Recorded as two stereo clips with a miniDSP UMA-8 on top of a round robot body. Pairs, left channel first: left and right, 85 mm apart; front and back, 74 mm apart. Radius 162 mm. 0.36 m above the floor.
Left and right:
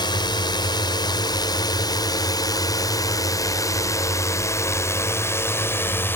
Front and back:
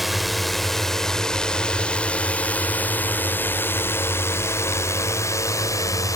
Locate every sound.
0.0 s a drone: 90° left; by 6.2 s 30° left